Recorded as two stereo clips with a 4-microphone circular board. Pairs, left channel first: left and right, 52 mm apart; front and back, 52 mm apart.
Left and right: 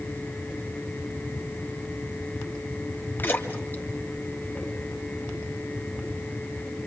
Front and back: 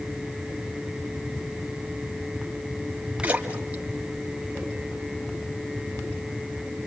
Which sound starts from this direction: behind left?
A splash, at 3.2 s.